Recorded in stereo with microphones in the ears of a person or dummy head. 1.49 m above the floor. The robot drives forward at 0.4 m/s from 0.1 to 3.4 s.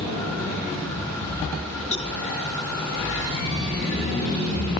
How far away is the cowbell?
About 0.5 m.